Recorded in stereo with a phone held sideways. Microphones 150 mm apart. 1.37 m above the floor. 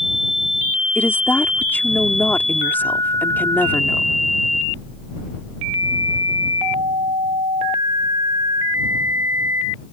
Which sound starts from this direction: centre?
A woman speaking, at 0.9 s.